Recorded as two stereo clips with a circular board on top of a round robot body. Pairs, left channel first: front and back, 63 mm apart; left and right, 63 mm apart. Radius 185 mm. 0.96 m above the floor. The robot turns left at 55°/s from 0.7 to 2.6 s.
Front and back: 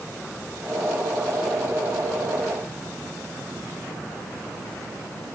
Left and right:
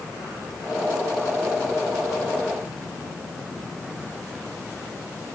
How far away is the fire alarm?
No fire alarm in this recording.